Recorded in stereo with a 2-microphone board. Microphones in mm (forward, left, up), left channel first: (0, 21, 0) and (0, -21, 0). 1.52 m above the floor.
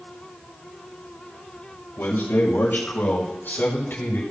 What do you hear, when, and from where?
2.0 s a man speaking: 65° left (ahead or behind), 5.5 m; by 4.2 s 55° left (ahead or behind), 6 m